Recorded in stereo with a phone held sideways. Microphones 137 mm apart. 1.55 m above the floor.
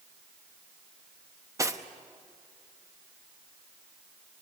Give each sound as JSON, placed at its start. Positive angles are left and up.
{"t": 1.6, "sound": "cutlery clinking", "side_deg": -25, "distance_m": 0.9}